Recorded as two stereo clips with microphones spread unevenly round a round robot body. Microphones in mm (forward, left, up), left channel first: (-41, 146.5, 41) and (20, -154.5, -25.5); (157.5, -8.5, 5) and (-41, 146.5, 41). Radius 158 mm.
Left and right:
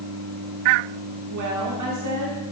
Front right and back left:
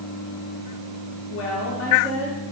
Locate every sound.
1.3 s a woman speaking: 60° right, 2.5 m; by 2.5 s 75° right, 2 m